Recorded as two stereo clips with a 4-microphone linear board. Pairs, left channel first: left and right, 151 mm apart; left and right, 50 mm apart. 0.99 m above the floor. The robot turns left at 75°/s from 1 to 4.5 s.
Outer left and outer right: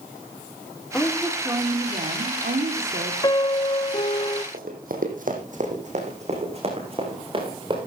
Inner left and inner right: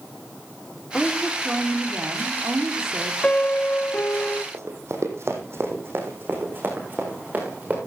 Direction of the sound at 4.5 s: 65° right (ahead or behind).